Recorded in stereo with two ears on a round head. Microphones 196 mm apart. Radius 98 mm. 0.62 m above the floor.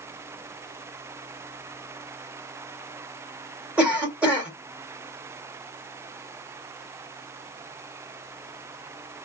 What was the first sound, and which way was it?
A cough, 5° right (ahead or behind).